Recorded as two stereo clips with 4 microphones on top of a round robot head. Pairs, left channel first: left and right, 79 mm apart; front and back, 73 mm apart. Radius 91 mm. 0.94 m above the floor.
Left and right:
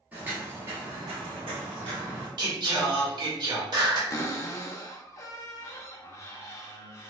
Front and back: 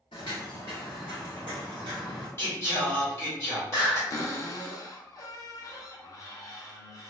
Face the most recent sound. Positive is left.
turn(degrees=40)